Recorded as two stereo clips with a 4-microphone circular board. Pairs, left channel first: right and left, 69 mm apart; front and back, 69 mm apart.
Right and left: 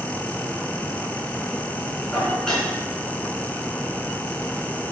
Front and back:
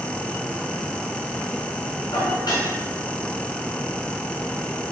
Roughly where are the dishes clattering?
Ahead.